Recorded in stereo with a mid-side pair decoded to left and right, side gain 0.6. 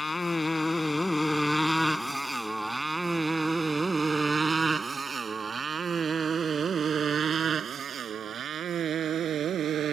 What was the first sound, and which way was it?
A motorcycle, 20° left.